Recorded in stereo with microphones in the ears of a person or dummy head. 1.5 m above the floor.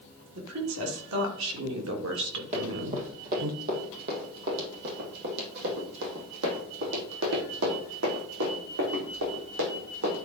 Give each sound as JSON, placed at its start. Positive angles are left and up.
{"t": 0.3, "sound": "a woman speaking", "side_deg": -85, "distance_m": 3.0}
{"t": 2.5, "sound": "running footsteps", "side_deg": -35, "distance_m": 3.0}